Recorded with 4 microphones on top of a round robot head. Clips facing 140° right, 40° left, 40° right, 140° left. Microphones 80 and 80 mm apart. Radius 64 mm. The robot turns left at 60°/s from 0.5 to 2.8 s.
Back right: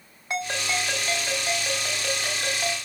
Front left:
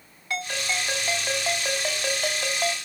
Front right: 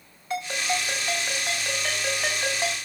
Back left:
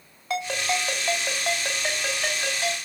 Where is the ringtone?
150° left, 6 m; by 2.8 s 15° left, 6 m.